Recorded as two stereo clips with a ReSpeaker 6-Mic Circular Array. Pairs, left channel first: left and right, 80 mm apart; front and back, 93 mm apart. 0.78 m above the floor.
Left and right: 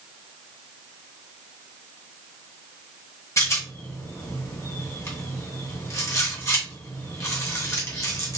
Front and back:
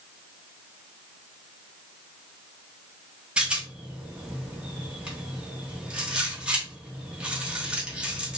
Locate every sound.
3.4 s a rattle: 110° left, 1.0 m